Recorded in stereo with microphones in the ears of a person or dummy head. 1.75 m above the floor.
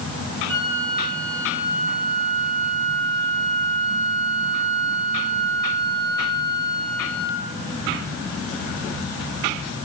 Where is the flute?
20° right (ahead or behind), 4.5 m.